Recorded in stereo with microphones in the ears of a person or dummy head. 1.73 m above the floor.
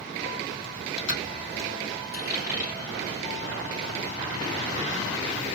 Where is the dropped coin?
55° left (ahead or behind), 2 m.